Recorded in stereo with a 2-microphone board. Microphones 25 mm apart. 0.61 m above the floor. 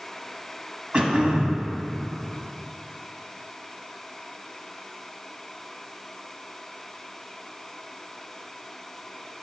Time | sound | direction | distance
0.9 | throat clearing | 45° right (ahead or behind) | 1.1 m